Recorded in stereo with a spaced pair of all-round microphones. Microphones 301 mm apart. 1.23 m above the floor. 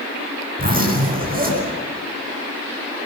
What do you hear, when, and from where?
0.6 s a zipper: 30° right (ahead or behind), 8.5 m